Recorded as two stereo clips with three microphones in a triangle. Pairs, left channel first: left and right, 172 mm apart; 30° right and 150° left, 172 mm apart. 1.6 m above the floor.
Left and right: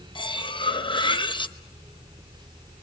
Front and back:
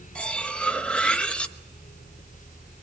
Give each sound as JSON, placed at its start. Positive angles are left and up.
{"t": 0.1, "sound": "cutlery clinking", "azimuth_deg": 50, "distance_m": 1.0}